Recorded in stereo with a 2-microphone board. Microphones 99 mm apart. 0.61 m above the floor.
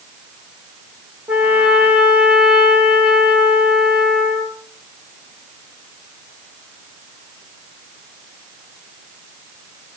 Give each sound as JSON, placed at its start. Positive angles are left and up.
{"t": 1.3, "sound": "a trumpet", "side_deg": -15, "distance_m": 4.5}